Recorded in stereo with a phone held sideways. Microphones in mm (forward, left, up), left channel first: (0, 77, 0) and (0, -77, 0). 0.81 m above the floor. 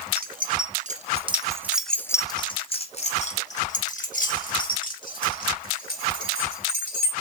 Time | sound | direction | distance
0.2 | keys jangling | 70° right (ahead or behind) | 0.9 m